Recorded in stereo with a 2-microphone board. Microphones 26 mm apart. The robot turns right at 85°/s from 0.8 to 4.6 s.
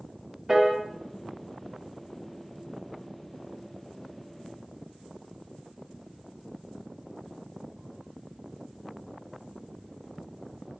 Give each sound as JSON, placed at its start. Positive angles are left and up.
{"t": 0.5, "sound": "a piano", "side_deg": -10, "distance_m": 0.9}